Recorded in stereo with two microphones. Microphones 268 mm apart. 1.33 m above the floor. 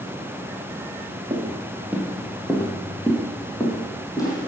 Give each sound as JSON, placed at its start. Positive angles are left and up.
{"t": 1.3, "sound": "footsteps", "side_deg": -15, "distance_m": 1.6}